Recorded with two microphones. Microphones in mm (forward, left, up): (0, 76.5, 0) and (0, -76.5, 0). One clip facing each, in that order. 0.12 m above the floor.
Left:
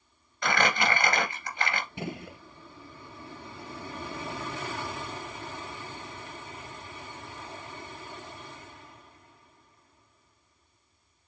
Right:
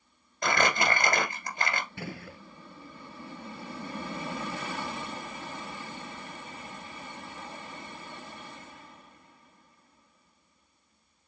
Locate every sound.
0.4 s crumpling: 40° right (ahead or behind), 2 m
2.0 s a gunshot: 20° left (ahead or behind), 0.6 m